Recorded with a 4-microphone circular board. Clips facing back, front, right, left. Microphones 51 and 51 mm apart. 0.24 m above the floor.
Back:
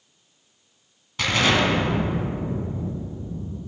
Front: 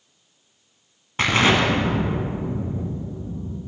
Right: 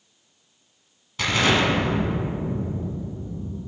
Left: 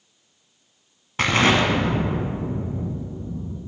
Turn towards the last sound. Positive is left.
turn(degrees=50)